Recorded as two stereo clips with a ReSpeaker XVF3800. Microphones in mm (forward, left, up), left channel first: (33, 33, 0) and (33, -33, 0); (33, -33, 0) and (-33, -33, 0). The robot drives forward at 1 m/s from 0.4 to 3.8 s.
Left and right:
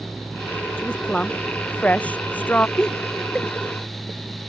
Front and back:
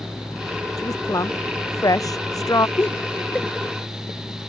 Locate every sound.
0.8 s a woman speaking: 20° left; by 2.7 s 25° left
2.8 s laughter: 20° left; by 3.5 s 45° left